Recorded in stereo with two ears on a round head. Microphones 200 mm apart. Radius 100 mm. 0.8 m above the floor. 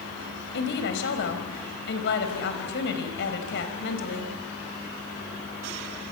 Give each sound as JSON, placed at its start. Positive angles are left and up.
{"t": 0.5, "sound": "a woman speaking", "side_deg": 55, "distance_m": 4.5}